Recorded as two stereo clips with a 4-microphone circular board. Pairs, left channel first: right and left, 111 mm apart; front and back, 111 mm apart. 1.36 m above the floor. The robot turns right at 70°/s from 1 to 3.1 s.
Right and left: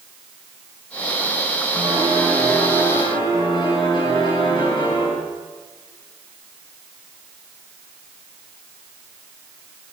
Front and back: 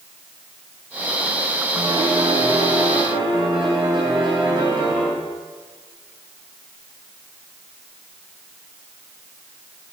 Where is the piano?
130° left, 9.5 m; by 5.1 s 135° right, 9.5 m.